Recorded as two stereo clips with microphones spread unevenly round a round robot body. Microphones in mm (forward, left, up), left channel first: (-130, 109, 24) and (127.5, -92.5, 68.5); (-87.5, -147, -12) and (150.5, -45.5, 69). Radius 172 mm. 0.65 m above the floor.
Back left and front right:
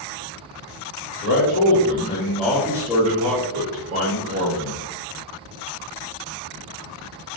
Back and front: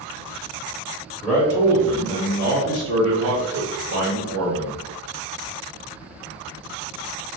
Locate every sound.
1.2 s a man speaking: 135° left, 1.1 m; by 4.8 s straight ahead, 1.5 m